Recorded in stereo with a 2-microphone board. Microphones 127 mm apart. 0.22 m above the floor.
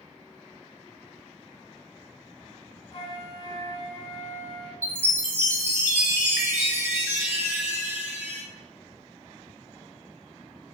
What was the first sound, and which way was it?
A flute, 50° left (ahead or behind).